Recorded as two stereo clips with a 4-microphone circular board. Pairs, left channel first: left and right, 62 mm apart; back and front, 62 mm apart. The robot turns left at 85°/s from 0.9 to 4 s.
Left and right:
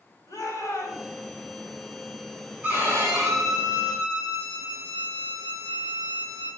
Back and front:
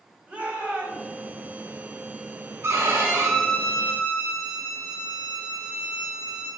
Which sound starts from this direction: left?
A shout, at 0.3 s.